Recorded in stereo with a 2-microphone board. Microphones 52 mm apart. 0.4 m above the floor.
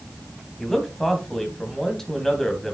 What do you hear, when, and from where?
0.6 s a man speaking: 10° left (ahead or behind), 2.5 m